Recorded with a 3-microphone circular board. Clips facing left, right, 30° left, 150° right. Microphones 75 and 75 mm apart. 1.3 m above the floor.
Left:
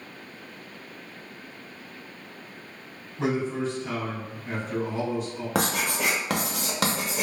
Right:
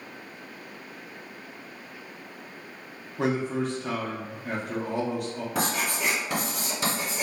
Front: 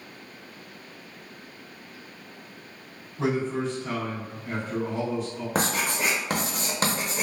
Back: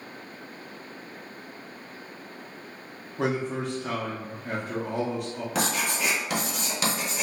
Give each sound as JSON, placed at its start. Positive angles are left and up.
{"t": 3.2, "sound": "a man speaking", "azimuth_deg": -120, "distance_m": 0.8}
{"t": 5.5, "sound": "writing", "azimuth_deg": 80, "distance_m": 0.7}